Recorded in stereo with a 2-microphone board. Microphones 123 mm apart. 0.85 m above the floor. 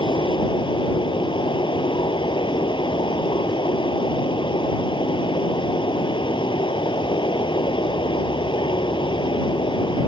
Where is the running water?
40° left (ahead or behind).